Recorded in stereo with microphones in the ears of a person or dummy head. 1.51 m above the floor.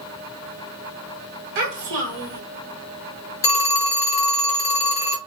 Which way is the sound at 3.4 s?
15° left (ahead or behind).